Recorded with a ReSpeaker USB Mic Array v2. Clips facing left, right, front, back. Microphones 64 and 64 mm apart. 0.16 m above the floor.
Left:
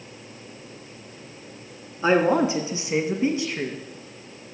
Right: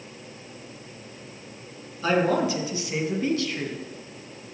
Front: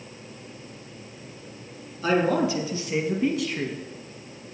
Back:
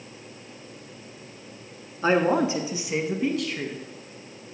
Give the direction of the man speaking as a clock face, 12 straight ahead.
7 o'clock.